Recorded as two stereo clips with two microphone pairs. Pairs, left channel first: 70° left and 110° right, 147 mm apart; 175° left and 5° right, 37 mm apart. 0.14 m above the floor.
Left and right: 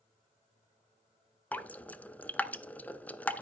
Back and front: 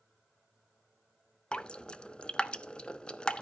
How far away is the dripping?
About 0.8 m.